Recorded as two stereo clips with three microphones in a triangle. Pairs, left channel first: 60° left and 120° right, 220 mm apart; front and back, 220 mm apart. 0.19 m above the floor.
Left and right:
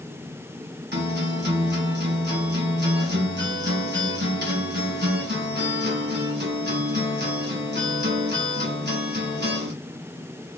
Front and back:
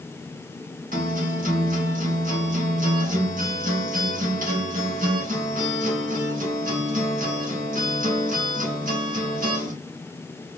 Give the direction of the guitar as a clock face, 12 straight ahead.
5 o'clock.